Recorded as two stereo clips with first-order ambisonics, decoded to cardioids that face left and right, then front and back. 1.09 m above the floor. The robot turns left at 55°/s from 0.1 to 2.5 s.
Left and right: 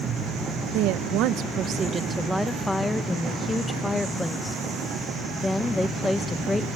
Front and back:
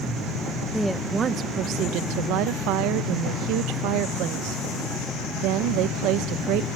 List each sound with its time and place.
0.7 s a woman speaking: 90° right, 0.7 m; by 6.7 s 170° left, 0.7 m